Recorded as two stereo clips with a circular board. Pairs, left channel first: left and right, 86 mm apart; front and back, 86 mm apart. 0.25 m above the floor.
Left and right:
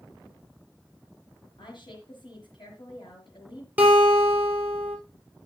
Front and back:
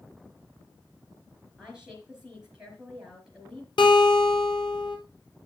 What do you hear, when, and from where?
1.6 s a woman speaking: 95° left, 4 m
3.8 s a guitar: 20° right, 3.5 m